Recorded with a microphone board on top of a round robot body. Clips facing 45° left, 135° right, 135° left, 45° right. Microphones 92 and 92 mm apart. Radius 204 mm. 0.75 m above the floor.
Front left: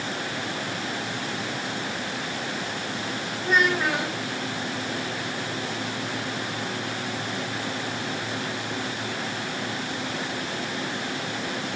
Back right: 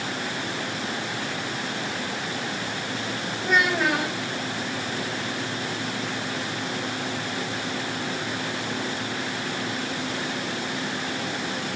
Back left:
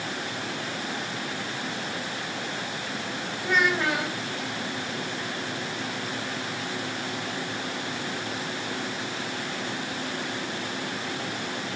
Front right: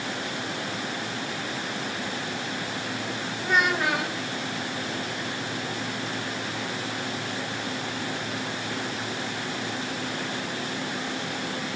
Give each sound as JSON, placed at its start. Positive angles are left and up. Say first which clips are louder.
{"t": 3.4, "sound": "a child speaking", "louder": "even, even", "azimuth_deg": -110, "distance_m": 1.6}